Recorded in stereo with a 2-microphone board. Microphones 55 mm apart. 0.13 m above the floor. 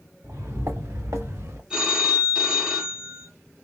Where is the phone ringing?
20° right (ahead or behind), 1.1 m.